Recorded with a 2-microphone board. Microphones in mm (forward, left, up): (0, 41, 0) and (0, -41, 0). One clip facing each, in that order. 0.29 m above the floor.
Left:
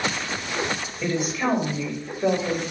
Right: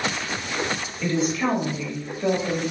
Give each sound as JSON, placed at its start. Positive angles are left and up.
{"t": 1.0, "sound": "a woman speaking", "side_deg": 20, "distance_m": 1.0}